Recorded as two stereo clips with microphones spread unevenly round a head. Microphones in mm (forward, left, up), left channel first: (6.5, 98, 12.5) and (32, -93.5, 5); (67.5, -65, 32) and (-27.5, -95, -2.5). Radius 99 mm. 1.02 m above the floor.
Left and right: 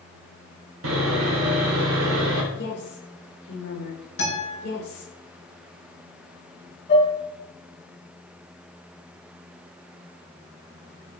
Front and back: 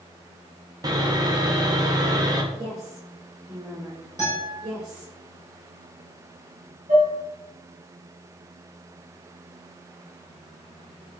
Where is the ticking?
No ticking in this recording.